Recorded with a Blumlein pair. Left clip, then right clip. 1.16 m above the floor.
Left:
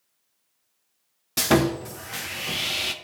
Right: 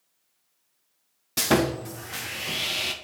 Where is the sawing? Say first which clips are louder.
Left 2 dB; 5° left, 0.6 m.